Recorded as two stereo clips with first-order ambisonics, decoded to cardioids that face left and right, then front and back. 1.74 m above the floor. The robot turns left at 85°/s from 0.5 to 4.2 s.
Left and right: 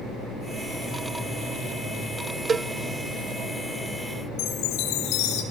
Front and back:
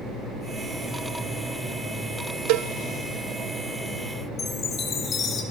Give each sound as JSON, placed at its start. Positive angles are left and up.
{"t": 2.5, "sound": "a cowbell", "azimuth_deg": -160, "distance_m": 0.6}
{"t": 4.4, "sound": "a chime", "azimuth_deg": 65, "distance_m": 4.0}